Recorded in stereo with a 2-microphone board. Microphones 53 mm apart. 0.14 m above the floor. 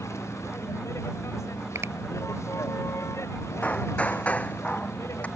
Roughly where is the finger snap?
Right.